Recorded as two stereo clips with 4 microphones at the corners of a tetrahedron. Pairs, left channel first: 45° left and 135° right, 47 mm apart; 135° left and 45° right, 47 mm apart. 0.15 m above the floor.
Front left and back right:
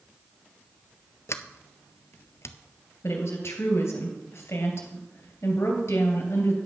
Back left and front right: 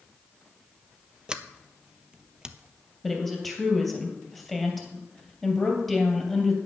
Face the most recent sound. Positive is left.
turn(degrees=45)